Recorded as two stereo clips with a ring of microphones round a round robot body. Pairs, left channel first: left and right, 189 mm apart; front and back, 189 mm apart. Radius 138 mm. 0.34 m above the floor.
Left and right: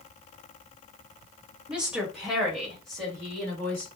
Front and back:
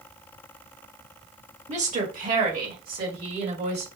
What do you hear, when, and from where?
1.7 s a woman speaking: 170° right, 1.7 m; by 3.9 s 175° left, 2.5 m